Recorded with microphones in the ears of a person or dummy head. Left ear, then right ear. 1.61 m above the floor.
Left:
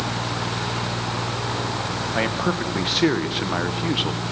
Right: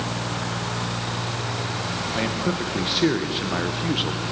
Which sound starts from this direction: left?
A man speaking, at 2.1 s.